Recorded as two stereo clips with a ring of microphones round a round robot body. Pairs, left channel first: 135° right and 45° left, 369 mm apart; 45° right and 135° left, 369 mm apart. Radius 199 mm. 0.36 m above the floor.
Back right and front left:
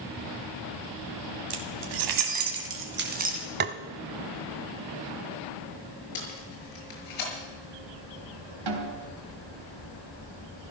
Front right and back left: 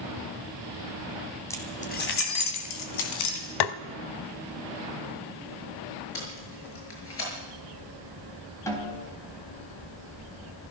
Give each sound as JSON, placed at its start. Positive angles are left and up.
{"t": 1.5, "sound": "keys jangling", "azimuth_deg": 40, "distance_m": 2.5}
{"t": 3.6, "sound": "tapping", "azimuth_deg": -20, "distance_m": 0.8}
{"t": 6.2, "sound": "tape being pulled", "azimuth_deg": -100, "distance_m": 6.5}
{"t": 8.7, "sound": "a snare drum", "azimuth_deg": 35, "distance_m": 3.0}